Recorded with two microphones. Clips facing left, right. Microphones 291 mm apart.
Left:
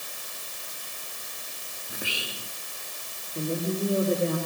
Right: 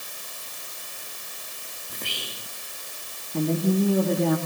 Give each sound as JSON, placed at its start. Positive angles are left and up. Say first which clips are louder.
{"t": 1.9, "sound": "whispering", "louder": "left 2 dB", "side_deg": 10, "distance_m": 1.3}
{"t": 3.3, "sound": "a woman speaking", "louder": "right 6 dB", "side_deg": -80, "distance_m": 7.0}